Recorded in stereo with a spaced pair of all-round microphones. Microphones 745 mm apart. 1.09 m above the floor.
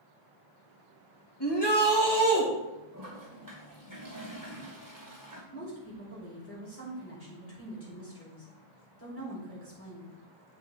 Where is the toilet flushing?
25° right (ahead or behind), 2 m.